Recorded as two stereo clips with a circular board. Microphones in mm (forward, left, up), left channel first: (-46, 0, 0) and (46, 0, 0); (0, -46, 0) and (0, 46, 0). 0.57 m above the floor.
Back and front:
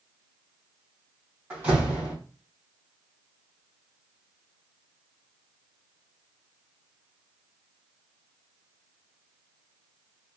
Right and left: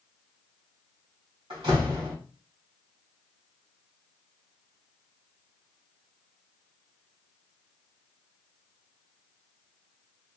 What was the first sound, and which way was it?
A door slam, 70° left.